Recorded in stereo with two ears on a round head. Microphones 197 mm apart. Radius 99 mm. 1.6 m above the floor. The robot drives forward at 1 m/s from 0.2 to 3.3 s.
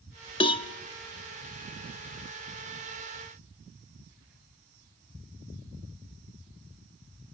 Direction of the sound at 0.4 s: 20° left (ahead or behind).